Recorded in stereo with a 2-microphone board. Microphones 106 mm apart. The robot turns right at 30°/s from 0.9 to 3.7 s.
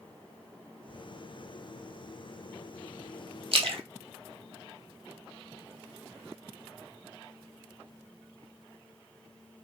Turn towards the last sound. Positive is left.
turn(degrees=-65)  # may be behind; listen again after turning